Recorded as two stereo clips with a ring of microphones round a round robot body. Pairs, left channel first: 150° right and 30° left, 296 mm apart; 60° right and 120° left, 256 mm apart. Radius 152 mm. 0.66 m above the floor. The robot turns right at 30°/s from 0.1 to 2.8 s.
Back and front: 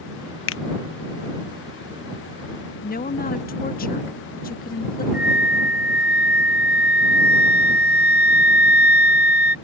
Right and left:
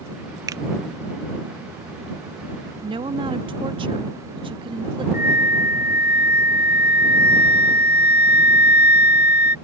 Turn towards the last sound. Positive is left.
turn(degrees=-100)